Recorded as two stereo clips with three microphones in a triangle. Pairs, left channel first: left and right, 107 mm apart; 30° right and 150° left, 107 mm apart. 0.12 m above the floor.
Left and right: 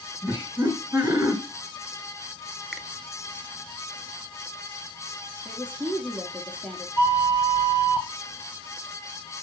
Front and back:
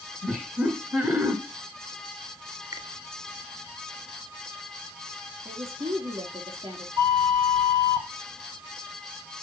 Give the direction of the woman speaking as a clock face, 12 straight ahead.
7 o'clock.